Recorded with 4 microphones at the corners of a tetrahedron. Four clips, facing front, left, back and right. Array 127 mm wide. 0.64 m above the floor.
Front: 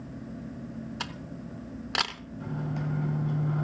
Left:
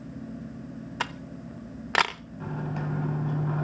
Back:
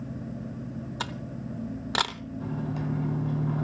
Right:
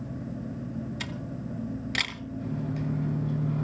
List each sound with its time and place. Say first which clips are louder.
1.0 s a camera shutter: left 1 dB, back 3 dB; 110° left, 0.8 m
2.4 s a microwave: even, back 1 dB; 95° left, 3.5 m